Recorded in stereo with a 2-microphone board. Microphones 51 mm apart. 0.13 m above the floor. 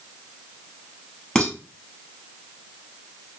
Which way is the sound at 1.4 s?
15° left (ahead or behind).